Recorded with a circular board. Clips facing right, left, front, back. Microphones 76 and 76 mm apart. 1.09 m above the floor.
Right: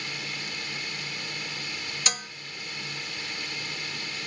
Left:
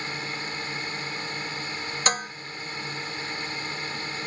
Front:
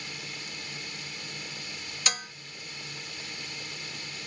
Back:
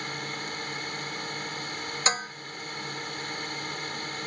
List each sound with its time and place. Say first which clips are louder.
0.0 s a drone: left 4 dB, back 7 dB; 145° left
2.1 s dishes clattering: left 9 dB, back 6 dB; 130° left